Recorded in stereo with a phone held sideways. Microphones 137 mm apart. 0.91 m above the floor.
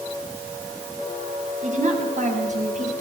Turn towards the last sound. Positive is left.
turn(degrees=-60)  # may be behind; listen again after turning